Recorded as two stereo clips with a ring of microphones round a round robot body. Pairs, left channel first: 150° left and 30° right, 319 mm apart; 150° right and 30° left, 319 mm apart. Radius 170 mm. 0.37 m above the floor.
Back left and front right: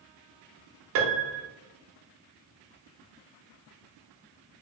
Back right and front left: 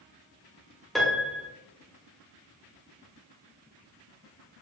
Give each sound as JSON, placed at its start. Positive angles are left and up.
{"t": 0.9, "sound": "a piano", "azimuth_deg": -60, "distance_m": 0.6}